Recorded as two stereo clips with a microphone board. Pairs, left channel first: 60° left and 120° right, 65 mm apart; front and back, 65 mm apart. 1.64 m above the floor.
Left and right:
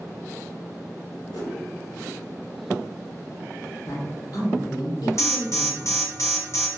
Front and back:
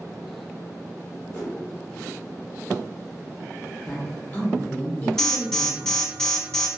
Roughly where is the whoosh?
Ahead left.